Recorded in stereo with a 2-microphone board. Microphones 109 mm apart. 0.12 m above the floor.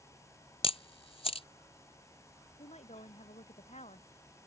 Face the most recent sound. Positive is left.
turn(degrees=80)